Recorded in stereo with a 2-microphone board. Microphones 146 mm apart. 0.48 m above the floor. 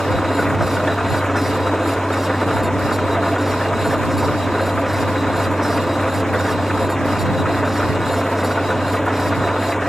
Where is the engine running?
5° left (ahead or behind).